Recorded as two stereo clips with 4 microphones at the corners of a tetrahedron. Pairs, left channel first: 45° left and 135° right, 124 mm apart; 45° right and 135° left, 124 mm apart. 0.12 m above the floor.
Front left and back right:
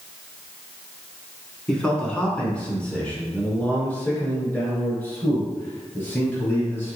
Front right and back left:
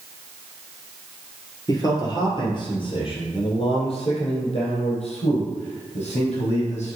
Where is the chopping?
No chopping in this recording.